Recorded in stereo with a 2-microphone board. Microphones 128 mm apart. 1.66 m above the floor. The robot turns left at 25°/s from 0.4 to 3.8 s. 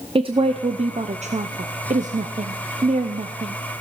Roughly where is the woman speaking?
Ahead right.